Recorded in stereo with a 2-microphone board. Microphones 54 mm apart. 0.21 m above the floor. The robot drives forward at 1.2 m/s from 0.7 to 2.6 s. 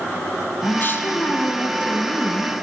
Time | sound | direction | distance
0.6 | a woman speaking | 40° left (ahead or behind) | 2.0 m